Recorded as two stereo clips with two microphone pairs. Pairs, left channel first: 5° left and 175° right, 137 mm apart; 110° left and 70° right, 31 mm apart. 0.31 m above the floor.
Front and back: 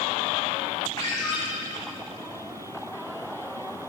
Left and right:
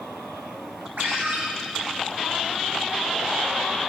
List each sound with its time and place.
1.0 s a ringtone: 60° right, 3 m